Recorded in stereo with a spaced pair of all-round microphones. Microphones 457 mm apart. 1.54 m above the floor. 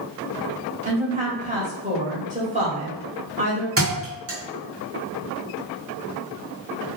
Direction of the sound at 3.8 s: 30° right (ahead or behind).